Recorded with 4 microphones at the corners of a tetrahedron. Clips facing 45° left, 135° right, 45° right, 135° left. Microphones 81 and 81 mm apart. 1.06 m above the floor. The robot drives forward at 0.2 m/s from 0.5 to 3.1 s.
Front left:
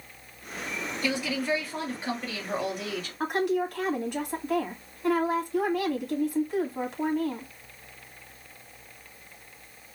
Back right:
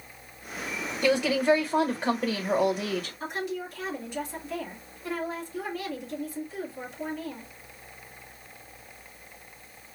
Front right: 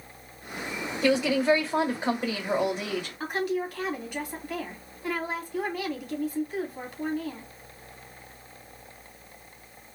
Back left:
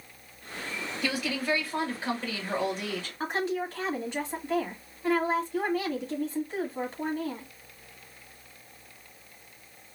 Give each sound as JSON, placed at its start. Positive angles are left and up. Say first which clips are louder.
{"t": 1.0, "sound": "a woman speaking", "louder": "back right 7 dB, front right 9 dB", "azimuth_deg": -105, "distance_m": 1.3}
{"t": 3.2, "sound": "a woman speaking", "louder": "front left 7 dB, even", "azimuth_deg": 75, "distance_m": 2.0}